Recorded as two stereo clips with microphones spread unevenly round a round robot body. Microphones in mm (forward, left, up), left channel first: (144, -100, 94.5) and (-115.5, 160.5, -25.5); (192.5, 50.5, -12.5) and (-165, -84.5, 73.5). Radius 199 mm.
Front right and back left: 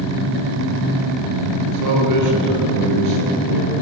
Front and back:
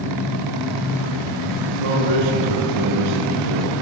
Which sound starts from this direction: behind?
A man speaking, at 1.6 s.